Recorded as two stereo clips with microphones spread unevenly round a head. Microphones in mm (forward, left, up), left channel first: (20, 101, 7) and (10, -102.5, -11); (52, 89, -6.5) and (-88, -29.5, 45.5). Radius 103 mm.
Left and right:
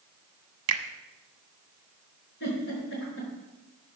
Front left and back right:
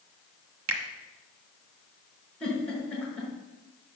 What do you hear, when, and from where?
0.7 s a finger snap: 115° right, 1.1 m
2.4 s a giggle: 125° left, 5 m